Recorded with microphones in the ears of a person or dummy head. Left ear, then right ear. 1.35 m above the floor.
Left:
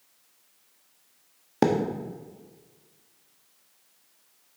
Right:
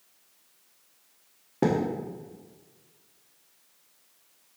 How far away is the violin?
No violin in this recording.